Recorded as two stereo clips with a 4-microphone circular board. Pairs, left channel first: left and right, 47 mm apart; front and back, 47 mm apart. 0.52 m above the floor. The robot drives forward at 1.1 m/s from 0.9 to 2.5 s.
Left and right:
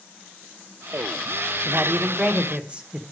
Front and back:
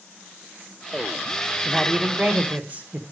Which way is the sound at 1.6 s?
85° right.